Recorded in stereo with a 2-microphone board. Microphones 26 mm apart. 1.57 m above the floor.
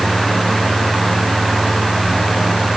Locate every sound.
Only background noise.